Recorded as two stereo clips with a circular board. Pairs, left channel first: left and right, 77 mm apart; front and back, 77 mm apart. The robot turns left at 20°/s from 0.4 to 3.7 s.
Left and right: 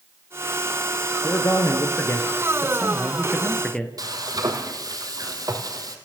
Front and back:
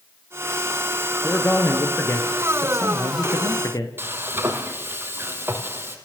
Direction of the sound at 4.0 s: 120° right.